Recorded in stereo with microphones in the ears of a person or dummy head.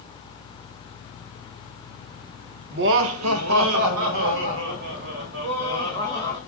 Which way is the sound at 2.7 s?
45° right (ahead or behind).